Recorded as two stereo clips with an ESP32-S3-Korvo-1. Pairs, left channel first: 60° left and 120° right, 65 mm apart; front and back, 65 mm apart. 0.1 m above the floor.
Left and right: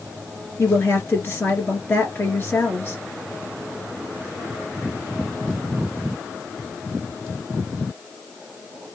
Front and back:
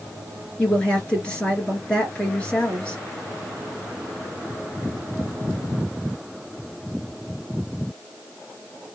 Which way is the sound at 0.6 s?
60° left.